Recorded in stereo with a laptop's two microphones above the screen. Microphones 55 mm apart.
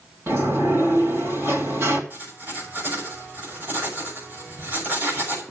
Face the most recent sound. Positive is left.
turn(degrees=-40)  # may be behind; listen again after turning